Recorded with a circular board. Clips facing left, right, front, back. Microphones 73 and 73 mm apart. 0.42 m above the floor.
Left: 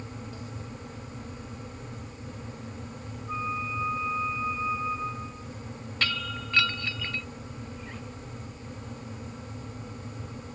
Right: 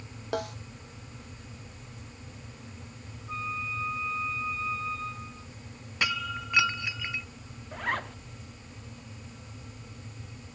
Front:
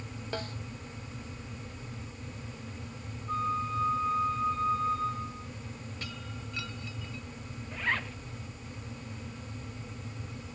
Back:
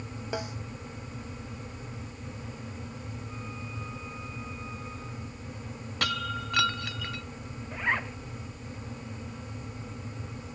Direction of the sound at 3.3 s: 15° left.